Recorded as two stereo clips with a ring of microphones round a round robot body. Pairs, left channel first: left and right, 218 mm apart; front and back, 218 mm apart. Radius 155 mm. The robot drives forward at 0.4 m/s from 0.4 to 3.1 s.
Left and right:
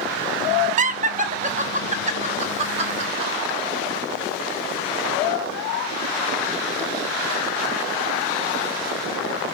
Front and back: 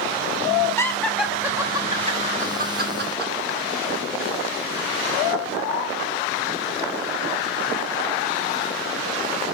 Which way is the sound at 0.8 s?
70° right.